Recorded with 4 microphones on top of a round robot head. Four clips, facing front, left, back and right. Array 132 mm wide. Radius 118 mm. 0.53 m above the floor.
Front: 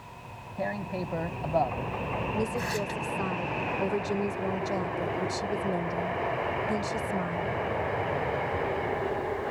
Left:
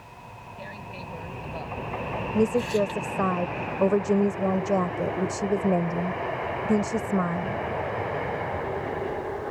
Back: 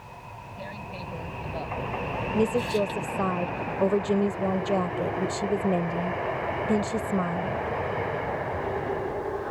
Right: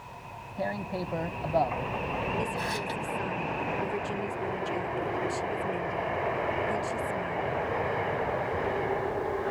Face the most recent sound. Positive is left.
turn(degrees=120)